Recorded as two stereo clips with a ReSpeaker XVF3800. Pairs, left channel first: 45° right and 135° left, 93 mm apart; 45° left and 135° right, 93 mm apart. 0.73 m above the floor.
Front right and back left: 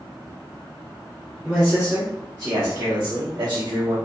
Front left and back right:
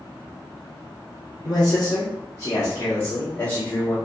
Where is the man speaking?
60° left, 1.0 m; by 4.0 s 125° left, 1.7 m.